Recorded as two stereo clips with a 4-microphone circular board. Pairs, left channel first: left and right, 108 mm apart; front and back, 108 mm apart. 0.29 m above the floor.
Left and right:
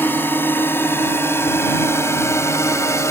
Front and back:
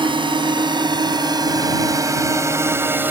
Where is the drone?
155° left; by 3.1 s 125° left.